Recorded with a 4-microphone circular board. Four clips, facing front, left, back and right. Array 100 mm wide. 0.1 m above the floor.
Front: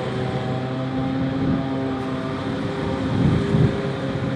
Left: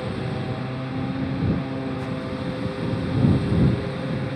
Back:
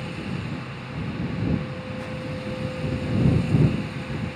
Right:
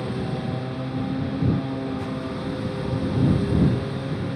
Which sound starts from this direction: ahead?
A lawn mower, at 0.0 s.